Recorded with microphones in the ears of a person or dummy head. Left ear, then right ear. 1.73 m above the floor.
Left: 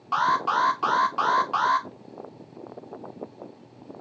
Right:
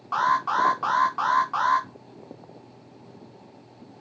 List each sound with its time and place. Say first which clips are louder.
0.1 s an alarm: even; 20° left (ahead or behind), 0.6 m